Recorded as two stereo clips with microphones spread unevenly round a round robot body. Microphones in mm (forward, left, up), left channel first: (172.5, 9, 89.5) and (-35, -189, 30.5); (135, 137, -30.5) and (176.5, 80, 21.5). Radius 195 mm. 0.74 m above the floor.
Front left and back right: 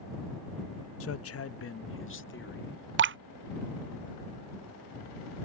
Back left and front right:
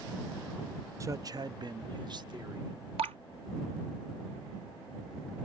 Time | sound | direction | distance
1.0 | a man speaking | 30° left | ?
3.0 | dripping | 95° right | ?